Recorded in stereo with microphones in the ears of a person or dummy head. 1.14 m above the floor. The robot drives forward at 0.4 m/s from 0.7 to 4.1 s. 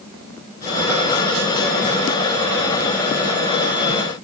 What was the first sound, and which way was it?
Only background noise.